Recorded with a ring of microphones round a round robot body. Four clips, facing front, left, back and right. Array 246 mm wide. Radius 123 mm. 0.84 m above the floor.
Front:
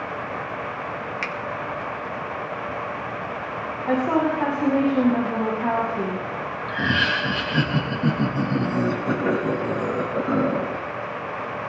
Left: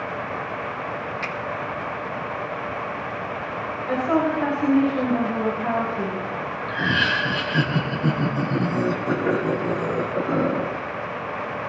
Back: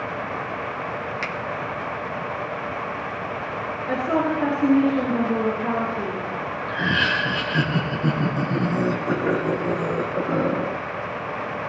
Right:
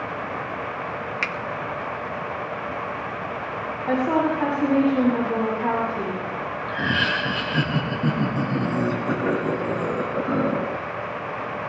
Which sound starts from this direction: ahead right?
A woman speaking, at 3.9 s.